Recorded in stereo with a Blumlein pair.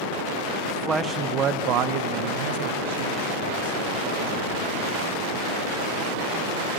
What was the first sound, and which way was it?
A man speaking, 5° right.